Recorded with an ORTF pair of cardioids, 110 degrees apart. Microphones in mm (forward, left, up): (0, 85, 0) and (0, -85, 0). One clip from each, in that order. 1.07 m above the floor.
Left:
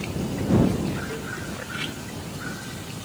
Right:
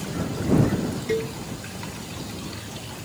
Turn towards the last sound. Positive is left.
turn(degrees=-65)